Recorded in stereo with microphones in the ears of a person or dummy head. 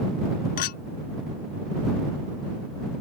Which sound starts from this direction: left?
A clink, at 0.6 s.